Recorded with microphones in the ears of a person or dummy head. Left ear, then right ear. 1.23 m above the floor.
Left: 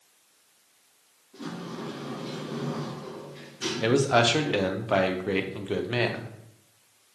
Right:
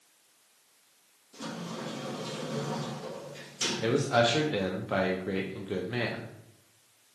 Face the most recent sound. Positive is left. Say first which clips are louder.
# left 4 dB
turn(degrees=20)  # may be behind; listen again after turning